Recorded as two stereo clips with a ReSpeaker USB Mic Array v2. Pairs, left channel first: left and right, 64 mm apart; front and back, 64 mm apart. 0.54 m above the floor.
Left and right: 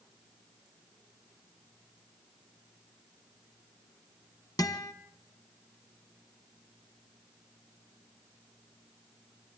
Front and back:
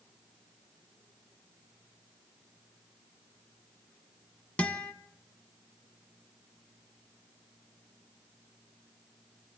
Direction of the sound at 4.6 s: 70° left.